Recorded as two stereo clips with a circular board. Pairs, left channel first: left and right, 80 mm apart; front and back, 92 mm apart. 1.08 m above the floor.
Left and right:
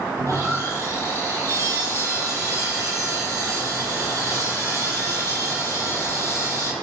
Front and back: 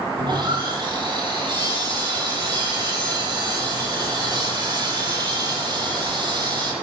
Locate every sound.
0.2 s sawing: 135° right, 7.5 m